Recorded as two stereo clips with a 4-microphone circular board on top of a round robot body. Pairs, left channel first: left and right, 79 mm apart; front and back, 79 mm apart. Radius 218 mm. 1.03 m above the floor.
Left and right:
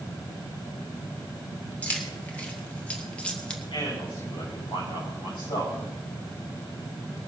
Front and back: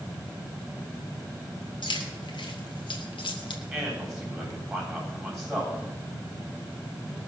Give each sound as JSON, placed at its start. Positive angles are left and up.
{"t": 1.8, "sound": "keys jangling", "azimuth_deg": 20, "distance_m": 2.5}
{"t": 3.7, "sound": "a man speaking", "azimuth_deg": 95, "distance_m": 9.5}